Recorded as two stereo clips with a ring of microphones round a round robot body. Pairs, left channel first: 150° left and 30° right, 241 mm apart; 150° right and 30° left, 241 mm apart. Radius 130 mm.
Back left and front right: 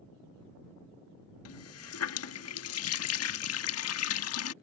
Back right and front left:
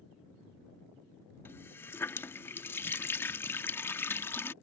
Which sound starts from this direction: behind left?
A running tap, at 1.4 s.